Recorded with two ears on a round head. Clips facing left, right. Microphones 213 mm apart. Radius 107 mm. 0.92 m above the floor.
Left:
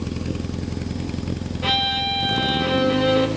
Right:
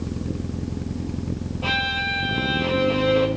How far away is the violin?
About 0.9 m.